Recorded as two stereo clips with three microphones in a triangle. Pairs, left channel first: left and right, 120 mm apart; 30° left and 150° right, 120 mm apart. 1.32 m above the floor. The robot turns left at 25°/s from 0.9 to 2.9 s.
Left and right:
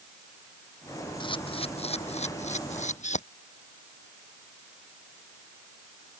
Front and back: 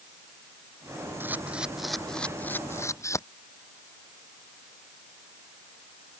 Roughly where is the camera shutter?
Behind left.